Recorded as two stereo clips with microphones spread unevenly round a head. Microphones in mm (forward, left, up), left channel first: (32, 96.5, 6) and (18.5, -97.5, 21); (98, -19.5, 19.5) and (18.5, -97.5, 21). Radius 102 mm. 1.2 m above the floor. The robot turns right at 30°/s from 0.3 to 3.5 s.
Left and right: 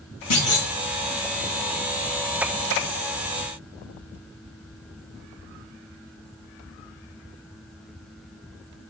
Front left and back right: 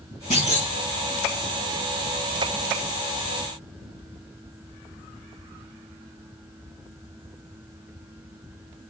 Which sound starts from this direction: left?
A clunk, at 0.3 s.